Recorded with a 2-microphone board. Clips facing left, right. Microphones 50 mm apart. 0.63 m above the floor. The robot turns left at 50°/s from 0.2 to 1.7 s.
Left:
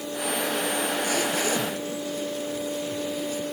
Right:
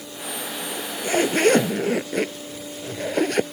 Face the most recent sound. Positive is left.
turn(degrees=-60)